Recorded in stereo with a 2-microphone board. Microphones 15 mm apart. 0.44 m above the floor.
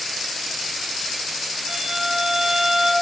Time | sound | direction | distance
1.7 | a violin | 75° right (ahead or behind) | 3 m